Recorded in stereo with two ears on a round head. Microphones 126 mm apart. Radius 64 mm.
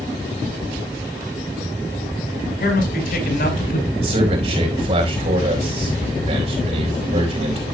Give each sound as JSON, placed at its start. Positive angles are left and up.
{"t": 2.6, "sound": "a man speaking", "side_deg": 75, "distance_m": 5.5}
{"t": 4.0, "sound": "a man speaking", "side_deg": -45, "distance_m": 4.5}